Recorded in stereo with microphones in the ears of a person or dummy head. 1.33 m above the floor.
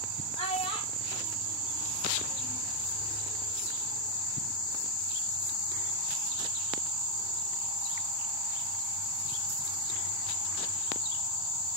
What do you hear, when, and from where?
0.4 s a child speaking: 35° left (ahead or behind), 0.8 m; by 2.6 s centre (ahead or behind), 1.7 m